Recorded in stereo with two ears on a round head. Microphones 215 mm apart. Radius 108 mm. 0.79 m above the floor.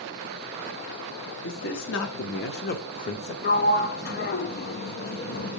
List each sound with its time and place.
1.4 s a man speaking: 55° left (ahead or behind), 1.3 m; by 3.3 s 25° left (ahead or behind), 0.9 m
3.4 s a sliding door: 40° left (ahead or behind), 0.6 m